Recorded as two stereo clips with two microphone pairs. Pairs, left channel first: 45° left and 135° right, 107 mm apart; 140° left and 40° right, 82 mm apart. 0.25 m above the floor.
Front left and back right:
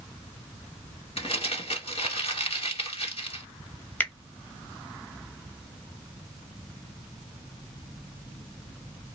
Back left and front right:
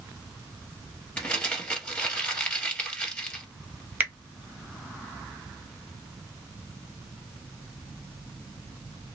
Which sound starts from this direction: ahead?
A finger snap, at 4.0 s.